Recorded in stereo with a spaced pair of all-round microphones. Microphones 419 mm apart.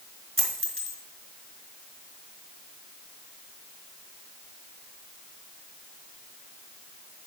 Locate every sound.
0.4 s a dropped coin: 30° right (ahead or behind), 2 m